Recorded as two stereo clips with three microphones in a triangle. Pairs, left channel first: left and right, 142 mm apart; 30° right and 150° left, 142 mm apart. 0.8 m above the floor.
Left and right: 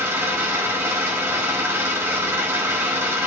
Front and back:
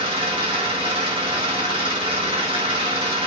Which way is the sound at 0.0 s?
160° right.